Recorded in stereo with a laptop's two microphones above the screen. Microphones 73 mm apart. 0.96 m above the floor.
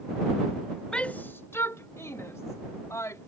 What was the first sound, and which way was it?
A shout, 10° left (ahead or behind).